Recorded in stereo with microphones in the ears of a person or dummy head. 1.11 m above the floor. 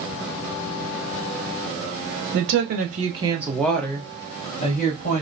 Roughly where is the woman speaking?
Right.